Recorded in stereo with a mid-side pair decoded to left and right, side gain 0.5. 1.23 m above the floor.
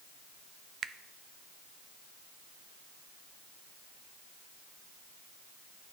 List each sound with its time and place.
0.8 s a finger snap: 55° right, 0.5 m